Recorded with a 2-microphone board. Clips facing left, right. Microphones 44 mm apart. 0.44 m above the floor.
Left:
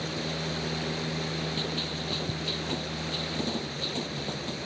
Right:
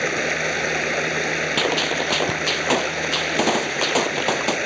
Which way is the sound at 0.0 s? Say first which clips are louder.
Right 11 dB; 70° right (ahead or behind).